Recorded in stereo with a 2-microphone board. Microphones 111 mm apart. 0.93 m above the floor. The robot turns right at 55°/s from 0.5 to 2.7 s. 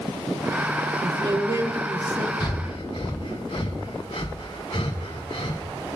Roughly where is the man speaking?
Ahead right.